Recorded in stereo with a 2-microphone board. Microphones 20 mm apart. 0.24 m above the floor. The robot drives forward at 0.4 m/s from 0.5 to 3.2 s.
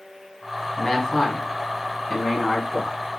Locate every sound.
0.8 s a man speaking: 25° left (ahead or behind), 1.5 m; by 3.0 s 20° left (ahead or behind), 2 m